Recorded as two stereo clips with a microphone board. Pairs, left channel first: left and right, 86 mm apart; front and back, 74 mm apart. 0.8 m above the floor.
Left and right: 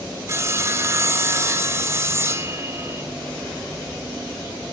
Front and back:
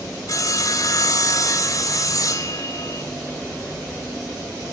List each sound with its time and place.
0.3 s sawing: 35° right, 1.7 m